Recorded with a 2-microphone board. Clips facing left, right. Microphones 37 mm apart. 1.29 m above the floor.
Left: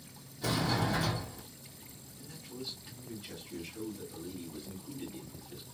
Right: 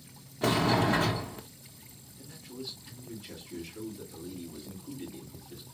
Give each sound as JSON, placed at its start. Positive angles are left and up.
{"t": 0.4, "sound": "a sliding door", "side_deg": -55, "distance_m": 0.9}
{"t": 2.2, "sound": "a man speaking", "side_deg": 20, "distance_m": 2.5}